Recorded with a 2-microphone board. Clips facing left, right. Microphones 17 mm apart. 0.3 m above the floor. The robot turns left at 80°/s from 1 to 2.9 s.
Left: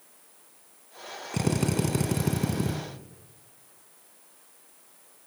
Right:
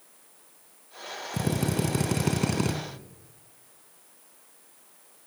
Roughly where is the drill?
Ahead left.